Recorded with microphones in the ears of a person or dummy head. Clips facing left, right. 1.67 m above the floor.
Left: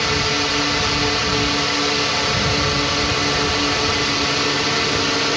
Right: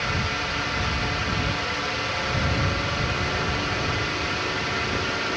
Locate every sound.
0.0 s a drone: 65° left (ahead or behind)